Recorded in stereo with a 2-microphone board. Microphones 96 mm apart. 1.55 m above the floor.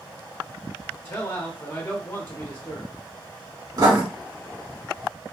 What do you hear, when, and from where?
1.1 s a man speaking: 20° left (ahead or behind), 0.8 m
3.8 s writing: 45° right (ahead or behind), 1.5 m